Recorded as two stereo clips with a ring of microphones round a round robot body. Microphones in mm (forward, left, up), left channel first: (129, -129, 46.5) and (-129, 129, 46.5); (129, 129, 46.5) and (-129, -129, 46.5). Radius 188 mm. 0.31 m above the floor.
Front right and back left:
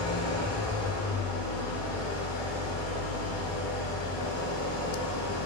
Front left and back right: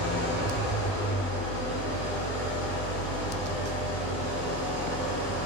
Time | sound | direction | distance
0.0 | an engine running | 20° left | 1.2 m